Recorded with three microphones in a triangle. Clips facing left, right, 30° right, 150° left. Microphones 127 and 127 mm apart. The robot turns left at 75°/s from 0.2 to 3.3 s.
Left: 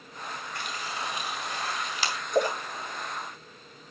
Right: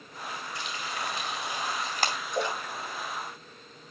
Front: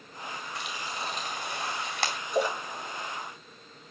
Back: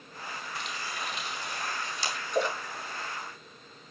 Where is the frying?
60° left, 3.5 m; by 2.2 s 60° right, 3.5 m.